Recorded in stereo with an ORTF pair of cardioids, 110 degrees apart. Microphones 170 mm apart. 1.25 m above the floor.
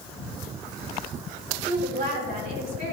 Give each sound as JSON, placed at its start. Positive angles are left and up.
{"t": 1.6, "sound": "a woman speaking", "azimuth_deg": -65, "distance_m": 3.5}